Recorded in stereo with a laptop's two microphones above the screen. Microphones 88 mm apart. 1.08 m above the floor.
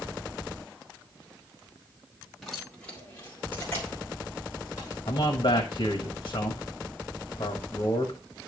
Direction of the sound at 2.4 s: Centre (ahead or behind).